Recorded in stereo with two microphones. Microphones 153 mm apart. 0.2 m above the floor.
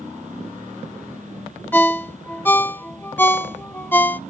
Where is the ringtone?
10° left (ahead or behind), 0.6 m.